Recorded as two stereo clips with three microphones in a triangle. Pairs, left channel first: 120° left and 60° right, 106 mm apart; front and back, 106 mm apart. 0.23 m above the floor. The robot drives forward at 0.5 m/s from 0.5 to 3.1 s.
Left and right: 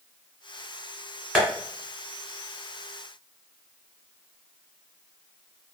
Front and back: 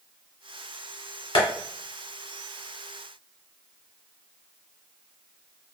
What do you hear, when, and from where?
1.4 s tapping: 25° left, 1.5 m